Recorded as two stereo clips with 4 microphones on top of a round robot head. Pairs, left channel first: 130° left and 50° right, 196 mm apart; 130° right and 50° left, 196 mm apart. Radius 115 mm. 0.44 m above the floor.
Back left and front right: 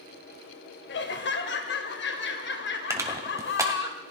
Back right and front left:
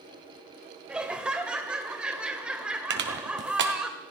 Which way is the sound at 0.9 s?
135° left.